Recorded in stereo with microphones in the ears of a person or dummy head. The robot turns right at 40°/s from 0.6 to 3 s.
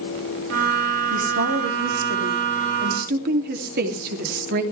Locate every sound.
1.1 s a woman speaking: 135° right, 3 m; by 4.6 s 55° right, 3 m